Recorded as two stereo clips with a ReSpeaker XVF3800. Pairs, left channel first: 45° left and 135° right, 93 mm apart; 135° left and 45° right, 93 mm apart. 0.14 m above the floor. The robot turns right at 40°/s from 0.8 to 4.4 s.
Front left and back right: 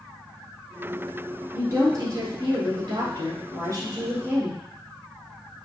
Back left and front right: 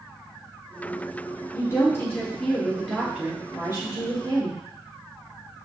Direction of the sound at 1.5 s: 170° left.